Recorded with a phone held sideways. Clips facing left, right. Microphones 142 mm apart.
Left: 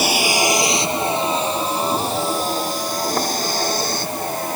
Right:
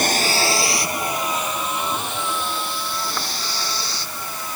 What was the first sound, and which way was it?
A vehicle, 10° left (ahead or behind).